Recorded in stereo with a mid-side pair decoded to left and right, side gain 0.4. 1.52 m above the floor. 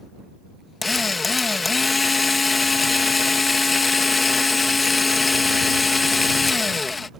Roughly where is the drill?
Ahead left.